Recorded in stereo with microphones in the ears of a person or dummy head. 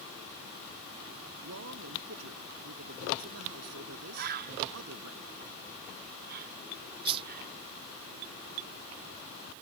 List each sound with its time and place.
1.4 s a man speaking: 90° right
4.1 s a bird: 55° right (ahead or behind)
7.0 s a whoosh: 30° right (ahead or behind)